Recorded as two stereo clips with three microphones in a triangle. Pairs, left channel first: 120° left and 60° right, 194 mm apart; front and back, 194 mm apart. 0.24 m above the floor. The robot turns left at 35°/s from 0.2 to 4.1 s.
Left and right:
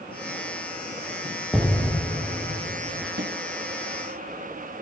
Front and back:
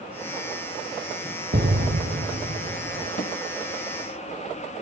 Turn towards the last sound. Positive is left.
turn(degrees=-60)